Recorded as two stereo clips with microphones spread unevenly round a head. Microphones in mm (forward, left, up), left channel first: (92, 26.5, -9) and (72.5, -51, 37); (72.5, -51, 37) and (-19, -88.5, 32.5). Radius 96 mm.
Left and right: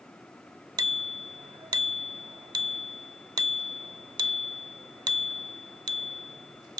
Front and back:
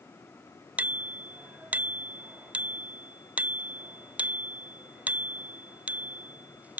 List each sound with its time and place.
0.8 s a bicycle bell: 80° right